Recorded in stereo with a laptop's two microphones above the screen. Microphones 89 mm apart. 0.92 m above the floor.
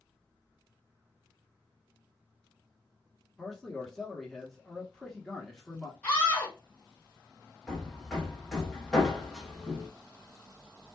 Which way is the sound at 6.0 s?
15° left (ahead or behind).